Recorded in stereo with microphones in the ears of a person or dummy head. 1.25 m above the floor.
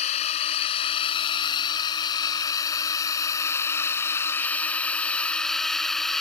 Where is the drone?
35° left (ahead or behind); by 6.2 s 5° left (ahead or behind).